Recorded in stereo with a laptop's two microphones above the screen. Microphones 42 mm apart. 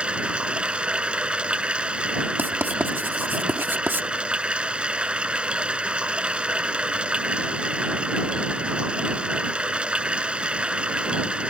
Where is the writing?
55° right (ahead or behind).